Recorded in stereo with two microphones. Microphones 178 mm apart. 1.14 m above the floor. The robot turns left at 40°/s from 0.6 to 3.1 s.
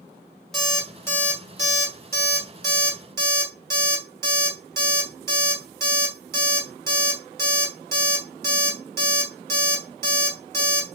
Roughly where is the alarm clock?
Centre.